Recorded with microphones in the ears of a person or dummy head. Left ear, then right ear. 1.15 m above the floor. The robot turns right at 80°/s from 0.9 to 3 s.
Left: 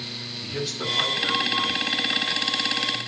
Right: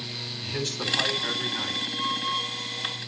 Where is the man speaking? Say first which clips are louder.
Left 1 dB; 130° right, 8 m; by 1.8 s 55° right, 8 m.